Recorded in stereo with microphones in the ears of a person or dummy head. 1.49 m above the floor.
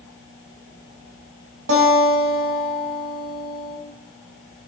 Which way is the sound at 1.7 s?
70° right (ahead or behind).